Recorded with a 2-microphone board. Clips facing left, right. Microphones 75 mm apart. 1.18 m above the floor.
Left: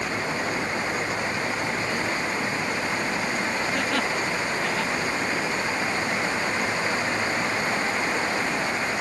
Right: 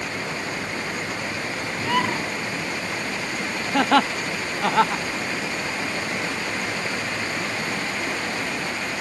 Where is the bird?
80° right.